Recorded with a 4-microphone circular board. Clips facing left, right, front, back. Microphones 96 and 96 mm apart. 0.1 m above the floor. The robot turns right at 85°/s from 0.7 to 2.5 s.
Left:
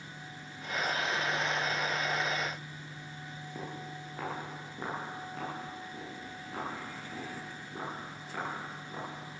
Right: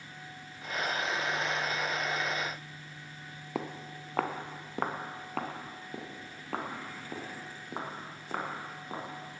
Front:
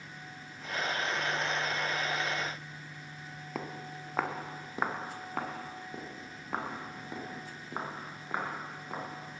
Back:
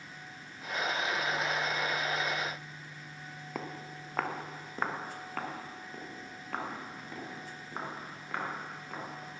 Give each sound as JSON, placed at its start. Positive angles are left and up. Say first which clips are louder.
{"t": 3.5, "sound": "footsteps", "louder": "right 5 dB, front 1 dB", "azimuth_deg": -90, "distance_m": 1.5}